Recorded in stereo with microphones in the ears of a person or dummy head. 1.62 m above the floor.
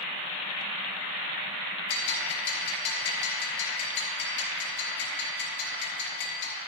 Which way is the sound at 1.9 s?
65° left (ahead or behind).